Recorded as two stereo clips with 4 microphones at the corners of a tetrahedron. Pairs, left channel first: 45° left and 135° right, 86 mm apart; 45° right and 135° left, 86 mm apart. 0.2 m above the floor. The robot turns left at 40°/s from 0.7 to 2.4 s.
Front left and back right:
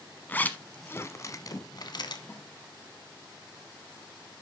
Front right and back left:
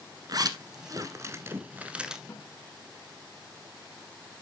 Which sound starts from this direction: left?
A zipper, at 0.3 s.